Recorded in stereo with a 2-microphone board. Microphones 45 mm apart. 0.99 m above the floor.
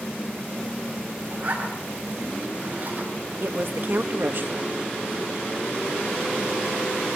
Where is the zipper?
35° right (ahead or behind), 7.5 m.